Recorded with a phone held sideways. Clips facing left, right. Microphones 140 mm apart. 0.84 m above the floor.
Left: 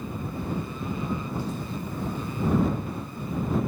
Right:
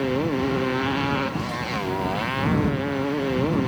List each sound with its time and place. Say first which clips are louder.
0.0 s a motorcycle: right 11 dB; 85° right